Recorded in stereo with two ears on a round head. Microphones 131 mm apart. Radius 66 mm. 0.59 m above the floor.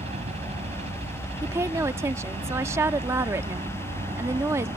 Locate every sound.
0.0 s a helicopter: 45° right (ahead or behind); by 4.8 s 40° right (ahead or behind)
1.4 s a woman speaking: 20° right (ahead or behind)